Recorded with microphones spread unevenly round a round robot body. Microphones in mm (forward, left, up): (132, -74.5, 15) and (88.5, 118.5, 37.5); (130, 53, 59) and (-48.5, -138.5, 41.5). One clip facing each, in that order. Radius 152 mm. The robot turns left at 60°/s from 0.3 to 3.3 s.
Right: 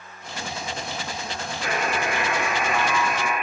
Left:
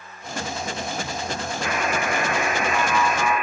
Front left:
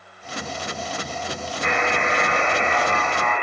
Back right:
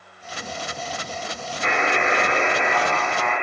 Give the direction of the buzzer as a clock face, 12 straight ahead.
5 o'clock.